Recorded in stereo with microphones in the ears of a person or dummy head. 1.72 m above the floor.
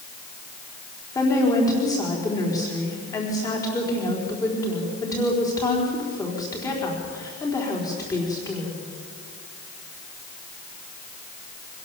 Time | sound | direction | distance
1.1 | a woman speaking | 15° left (ahead or behind) | 4.5 m